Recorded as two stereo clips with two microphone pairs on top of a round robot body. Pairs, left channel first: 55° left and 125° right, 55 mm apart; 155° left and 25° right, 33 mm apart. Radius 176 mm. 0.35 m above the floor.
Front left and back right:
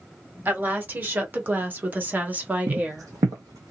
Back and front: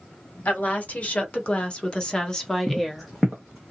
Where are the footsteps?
135° right, 0.6 m; by 3.7 s 115° right, 1.3 m.